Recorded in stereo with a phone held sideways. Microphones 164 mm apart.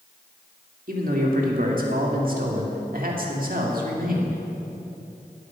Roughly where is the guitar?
No guitar in this recording.